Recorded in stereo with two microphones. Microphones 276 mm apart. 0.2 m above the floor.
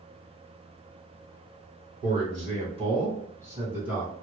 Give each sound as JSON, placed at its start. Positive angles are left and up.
{"t": 2.0, "sound": "a man speaking", "side_deg": -30, "distance_m": 1.9}